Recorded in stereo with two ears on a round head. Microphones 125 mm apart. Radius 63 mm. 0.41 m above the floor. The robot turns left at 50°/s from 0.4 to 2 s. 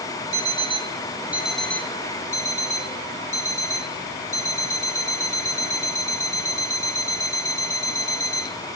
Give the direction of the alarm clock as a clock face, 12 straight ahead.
4 o'clock.